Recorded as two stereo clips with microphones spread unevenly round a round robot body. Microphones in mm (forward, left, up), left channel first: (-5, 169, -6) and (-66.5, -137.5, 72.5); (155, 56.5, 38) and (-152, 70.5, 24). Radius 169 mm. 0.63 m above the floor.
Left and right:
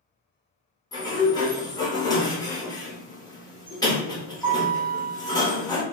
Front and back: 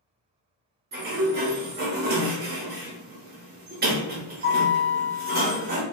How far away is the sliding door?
About 1.0 m.